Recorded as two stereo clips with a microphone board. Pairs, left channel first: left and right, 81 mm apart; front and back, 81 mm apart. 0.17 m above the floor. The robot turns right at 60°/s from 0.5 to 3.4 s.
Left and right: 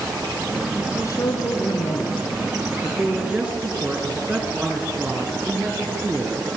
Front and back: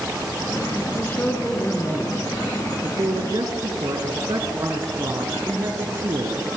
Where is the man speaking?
50° left, 2.5 m; by 6.5 s 165° right, 2.5 m.